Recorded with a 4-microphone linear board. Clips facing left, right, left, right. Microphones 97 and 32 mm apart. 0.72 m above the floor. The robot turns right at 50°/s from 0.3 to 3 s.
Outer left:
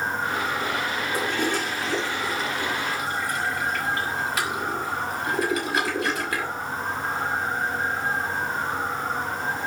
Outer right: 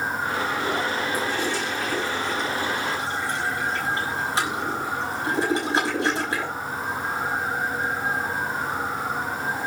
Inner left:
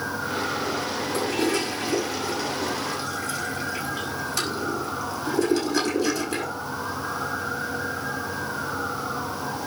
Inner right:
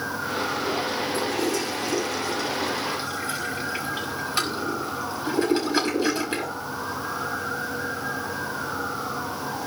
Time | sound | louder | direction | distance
1.1 | a toilet flushing | even, inner left 4 dB | 60° left (ahead or behind) | 5.5 m